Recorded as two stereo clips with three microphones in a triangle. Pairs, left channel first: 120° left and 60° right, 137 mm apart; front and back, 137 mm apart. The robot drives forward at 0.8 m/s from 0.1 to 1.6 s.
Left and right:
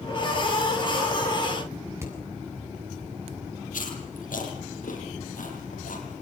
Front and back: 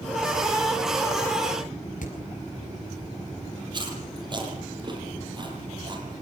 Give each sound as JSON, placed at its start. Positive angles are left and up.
{"t": 2.0, "sound": "hammering", "azimuth_deg": 10, "distance_m": 8.0}
{"t": 3.7, "sound": "chewing", "azimuth_deg": 125, "distance_m": 8.5}